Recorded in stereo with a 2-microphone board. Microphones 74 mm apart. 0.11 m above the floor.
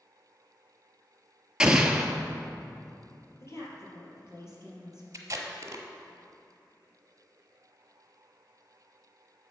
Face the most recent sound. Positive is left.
turn(degrees=-45)  # may be behind; listen again after turning